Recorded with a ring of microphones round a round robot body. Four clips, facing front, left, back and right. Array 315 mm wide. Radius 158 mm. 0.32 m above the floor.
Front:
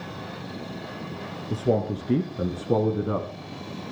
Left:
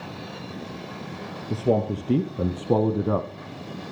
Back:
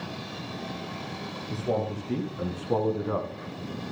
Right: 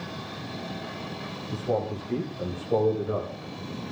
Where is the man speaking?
55° left, 4 m; by 3.3 s 70° left, 2.5 m.